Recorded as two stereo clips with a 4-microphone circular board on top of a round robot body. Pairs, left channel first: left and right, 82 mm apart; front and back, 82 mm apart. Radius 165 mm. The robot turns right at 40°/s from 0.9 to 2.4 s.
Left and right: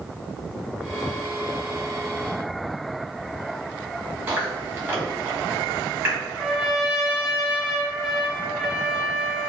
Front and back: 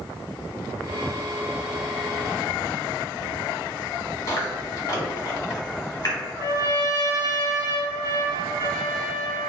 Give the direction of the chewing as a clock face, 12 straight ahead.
1 o'clock.